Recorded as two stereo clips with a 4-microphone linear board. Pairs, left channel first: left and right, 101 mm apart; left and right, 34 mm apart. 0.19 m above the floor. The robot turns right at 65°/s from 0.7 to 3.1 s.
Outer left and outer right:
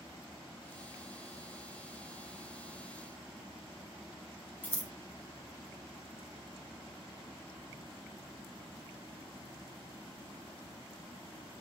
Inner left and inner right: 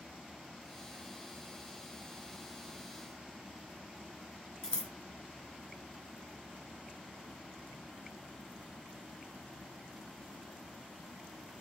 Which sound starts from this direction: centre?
Scissors, at 4.6 s.